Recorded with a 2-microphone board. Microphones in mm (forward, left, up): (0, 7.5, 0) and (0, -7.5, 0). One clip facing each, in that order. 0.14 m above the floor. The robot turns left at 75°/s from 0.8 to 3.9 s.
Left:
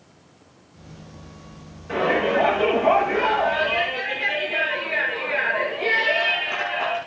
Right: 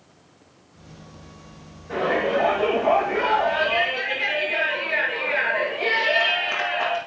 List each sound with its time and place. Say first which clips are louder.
1.9 s a shout: left 2 dB; 135° left, 8 m; by 7.0 s 15° right, 8 m